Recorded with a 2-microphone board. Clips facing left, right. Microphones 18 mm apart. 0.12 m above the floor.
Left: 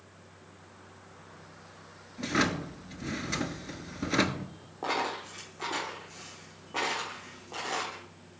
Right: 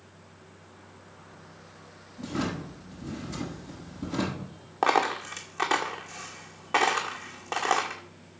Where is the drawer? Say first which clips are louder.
Left 4 dB; 50° left (ahead or behind), 1.1 m.